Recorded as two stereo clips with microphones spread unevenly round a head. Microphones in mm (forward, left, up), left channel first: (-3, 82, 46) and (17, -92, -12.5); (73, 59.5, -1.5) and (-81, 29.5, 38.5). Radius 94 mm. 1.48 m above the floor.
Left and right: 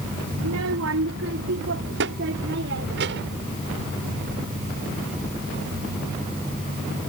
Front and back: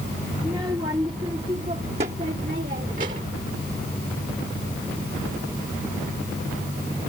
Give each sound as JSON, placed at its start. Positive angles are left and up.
{"t": 0.4, "sound": "a child speaking", "azimuth_deg": -95}